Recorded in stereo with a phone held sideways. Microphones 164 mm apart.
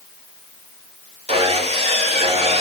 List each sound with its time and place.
1.3 s sawing: 40° right (ahead or behind), 3.5 m